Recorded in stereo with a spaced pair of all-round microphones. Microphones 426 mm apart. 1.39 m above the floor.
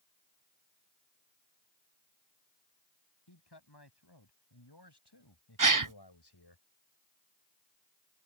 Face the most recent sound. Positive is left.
turn(degrees=-50)  # may be behind; listen again after turning